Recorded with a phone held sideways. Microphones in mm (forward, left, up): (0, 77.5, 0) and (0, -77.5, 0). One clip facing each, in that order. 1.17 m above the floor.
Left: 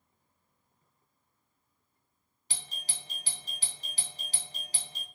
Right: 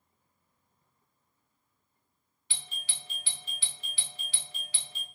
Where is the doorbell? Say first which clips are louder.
Left 2 dB; 40° left (ahead or behind), 0.8 m.